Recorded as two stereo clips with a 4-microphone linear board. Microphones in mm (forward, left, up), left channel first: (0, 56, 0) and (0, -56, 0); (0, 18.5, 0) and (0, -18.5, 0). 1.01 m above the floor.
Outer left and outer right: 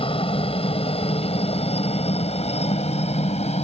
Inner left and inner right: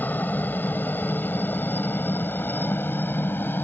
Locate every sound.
0.0 s a helicopter: 55° left (ahead or behind); by 3.6 s 75° left (ahead or behind)